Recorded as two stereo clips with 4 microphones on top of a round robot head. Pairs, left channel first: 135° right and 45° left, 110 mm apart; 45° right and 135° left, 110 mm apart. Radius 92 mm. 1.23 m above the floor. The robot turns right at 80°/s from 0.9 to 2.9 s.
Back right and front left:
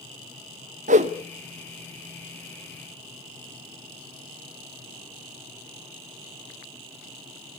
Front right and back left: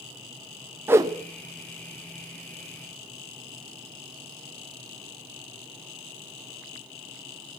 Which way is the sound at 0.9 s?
60° left.